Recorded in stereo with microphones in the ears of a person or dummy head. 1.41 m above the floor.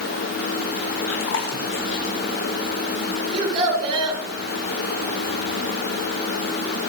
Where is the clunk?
No clunk in this recording.